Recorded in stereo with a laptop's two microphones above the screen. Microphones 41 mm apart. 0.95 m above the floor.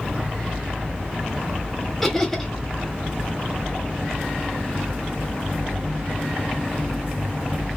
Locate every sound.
2.0 s laughter: 5° left (ahead or behind), 0.9 m